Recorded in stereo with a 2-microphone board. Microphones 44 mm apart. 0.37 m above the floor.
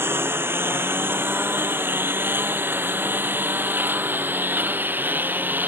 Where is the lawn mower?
65° right (ahead or behind); by 5.7 s 45° right (ahead or behind).